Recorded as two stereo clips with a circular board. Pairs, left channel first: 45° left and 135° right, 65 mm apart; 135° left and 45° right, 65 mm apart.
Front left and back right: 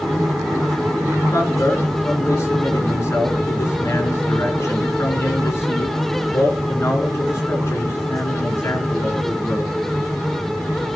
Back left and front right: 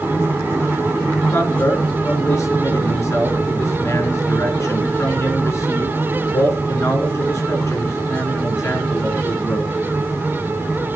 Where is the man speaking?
90° left, 4.5 m.